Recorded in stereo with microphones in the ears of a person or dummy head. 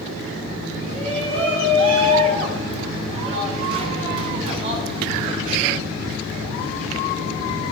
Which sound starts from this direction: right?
A shout, at 0.9 s.